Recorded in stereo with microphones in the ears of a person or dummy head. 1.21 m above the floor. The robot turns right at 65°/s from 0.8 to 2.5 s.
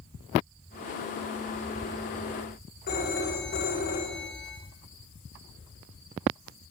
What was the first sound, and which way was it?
A phone ringing, 50° left (ahead or behind).